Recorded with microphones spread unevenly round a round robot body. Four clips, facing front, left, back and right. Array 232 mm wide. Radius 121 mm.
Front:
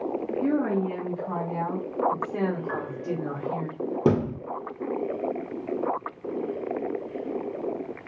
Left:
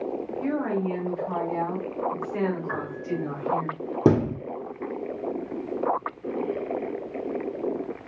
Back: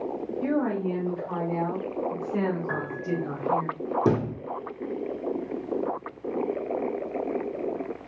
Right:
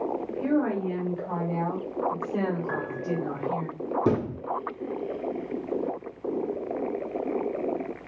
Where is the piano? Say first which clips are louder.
Even, back 1 dB; 135° right, 1.9 m.